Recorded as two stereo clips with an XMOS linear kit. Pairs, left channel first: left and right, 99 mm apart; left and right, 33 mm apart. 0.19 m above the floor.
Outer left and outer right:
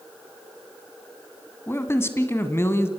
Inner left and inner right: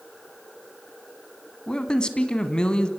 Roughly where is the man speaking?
Left.